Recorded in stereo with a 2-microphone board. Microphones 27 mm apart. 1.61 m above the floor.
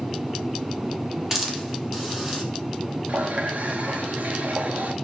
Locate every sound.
1.3 s a hiss: 15° right (ahead or behind), 3.5 m
3.1 s a running tap: 60° right (ahead or behind), 1.8 m